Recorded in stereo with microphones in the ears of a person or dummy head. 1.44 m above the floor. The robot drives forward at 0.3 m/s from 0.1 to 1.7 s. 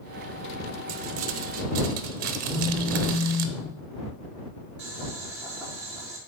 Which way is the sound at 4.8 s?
5° right (ahead or behind).